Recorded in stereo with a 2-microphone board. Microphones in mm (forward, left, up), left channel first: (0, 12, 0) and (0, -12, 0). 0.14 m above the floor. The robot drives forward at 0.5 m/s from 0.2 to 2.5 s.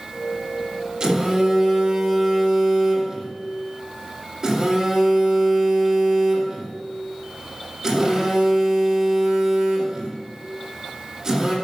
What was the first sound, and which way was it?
A phone buzzing, 35° right (ahead or behind).